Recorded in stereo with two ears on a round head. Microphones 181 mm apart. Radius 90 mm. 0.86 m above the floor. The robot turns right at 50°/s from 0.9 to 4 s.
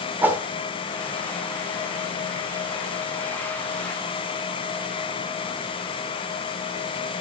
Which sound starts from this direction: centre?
A whoosh, at 0.2 s.